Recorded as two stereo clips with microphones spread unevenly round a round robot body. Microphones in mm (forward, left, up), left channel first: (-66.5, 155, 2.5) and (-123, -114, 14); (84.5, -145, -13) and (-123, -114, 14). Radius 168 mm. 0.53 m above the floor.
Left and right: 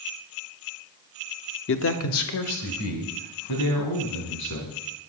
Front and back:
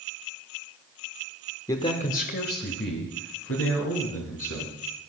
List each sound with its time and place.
1.7 s a man speaking: 60° left, 0.8 m; by 4.8 s 35° left, 5 m